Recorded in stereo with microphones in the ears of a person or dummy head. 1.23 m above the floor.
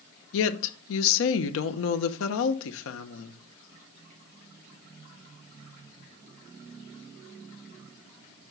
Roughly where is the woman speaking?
Left.